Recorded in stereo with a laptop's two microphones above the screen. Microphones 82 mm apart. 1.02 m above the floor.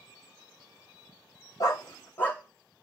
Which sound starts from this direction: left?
A dog barking, at 1.6 s.